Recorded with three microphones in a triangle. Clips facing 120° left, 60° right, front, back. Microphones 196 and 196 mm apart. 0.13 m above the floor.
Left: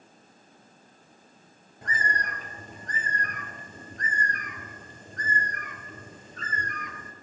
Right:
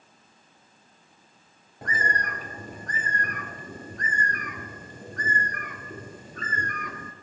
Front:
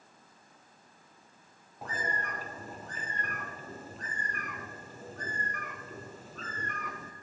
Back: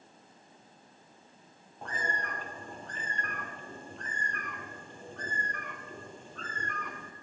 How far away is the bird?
About 0.6 m.